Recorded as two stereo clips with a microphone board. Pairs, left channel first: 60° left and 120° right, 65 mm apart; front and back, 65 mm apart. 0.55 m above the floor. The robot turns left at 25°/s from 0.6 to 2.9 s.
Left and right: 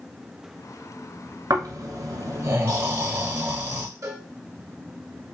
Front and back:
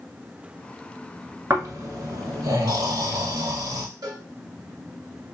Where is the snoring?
135° right, 1.2 m; by 3.9 s 170° right, 1.2 m.